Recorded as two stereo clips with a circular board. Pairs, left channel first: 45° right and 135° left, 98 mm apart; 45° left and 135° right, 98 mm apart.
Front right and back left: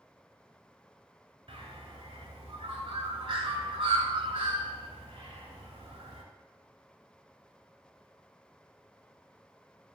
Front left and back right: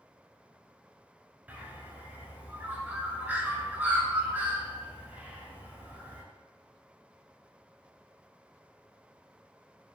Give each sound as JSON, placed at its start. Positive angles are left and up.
{"t": 1.5, "sound": "a bird", "azimuth_deg": 150, "distance_m": 0.5}